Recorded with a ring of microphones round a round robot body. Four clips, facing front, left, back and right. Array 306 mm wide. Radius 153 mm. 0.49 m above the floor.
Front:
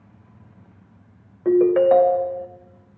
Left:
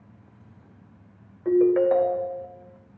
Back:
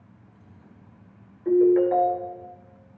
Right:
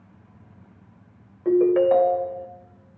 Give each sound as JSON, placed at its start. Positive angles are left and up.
{"t": 1.4, "sound": "a ringtone", "azimuth_deg": -10, "distance_m": 1.0}